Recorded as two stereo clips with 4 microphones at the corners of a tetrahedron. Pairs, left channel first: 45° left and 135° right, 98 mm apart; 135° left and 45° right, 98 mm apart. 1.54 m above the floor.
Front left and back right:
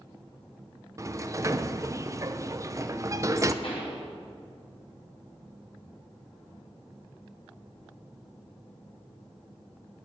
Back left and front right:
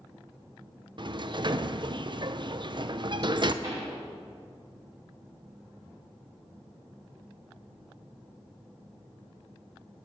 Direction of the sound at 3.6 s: 15° left.